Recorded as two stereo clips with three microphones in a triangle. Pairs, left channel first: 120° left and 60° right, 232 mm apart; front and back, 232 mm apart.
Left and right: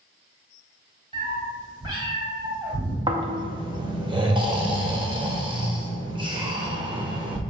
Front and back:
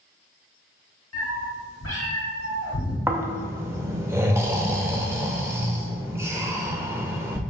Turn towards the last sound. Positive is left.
turn(degrees=-110)